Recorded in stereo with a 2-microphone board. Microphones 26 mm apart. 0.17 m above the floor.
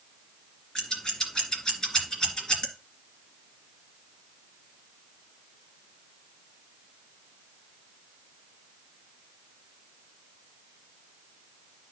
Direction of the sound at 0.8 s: 25° left (ahead or behind).